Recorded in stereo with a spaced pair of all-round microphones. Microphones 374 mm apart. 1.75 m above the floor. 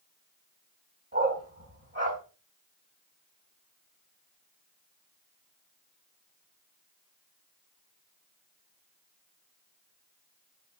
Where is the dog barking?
30° right (ahead or behind), 4 m.